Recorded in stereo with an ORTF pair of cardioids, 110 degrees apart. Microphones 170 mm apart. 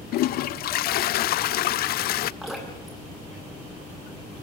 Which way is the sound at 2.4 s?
Straight ahead.